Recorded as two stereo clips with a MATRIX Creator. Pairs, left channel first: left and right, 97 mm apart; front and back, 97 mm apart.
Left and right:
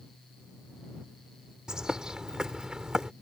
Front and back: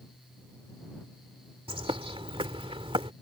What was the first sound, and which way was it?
A bird, 175° right.